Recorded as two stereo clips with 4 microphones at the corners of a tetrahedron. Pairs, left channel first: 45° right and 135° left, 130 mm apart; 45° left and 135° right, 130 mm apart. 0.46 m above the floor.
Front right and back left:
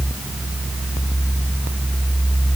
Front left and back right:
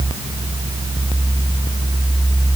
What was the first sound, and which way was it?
Only background noise.